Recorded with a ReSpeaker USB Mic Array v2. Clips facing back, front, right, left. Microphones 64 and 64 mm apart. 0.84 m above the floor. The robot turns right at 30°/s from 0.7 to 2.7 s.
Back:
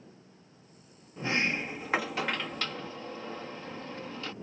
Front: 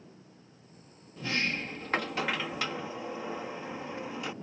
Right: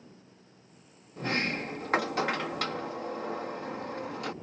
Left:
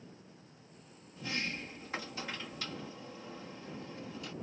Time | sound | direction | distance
1.2 | a sliding door | 120° right | ?